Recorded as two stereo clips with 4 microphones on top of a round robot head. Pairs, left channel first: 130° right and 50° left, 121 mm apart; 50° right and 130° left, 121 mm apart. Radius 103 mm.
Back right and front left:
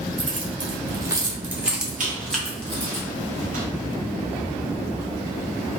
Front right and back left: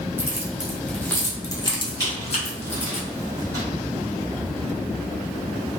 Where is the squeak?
65° left, 1.2 m.